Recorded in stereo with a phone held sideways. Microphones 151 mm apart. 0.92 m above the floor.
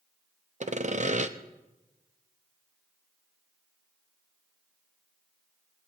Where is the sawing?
50° right (ahead or behind), 0.7 m.